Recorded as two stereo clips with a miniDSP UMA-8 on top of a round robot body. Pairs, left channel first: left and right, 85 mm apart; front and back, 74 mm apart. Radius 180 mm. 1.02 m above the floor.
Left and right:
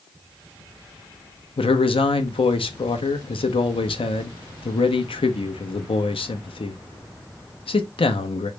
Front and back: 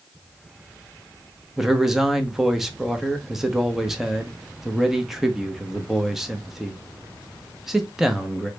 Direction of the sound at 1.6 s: 95° left.